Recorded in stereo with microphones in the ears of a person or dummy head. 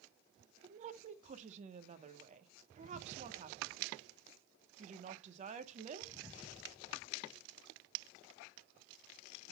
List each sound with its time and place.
0.6 s a woman speaking: 40° right (ahead or behind), 0.9 m